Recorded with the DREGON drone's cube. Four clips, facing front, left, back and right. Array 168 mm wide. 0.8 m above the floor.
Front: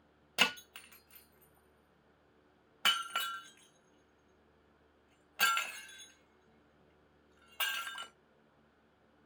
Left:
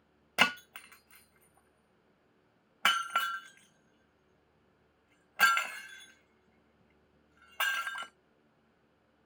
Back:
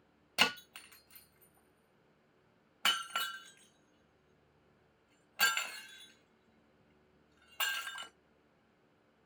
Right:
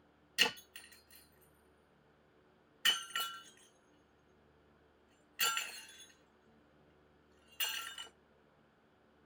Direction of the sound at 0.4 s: 75° left.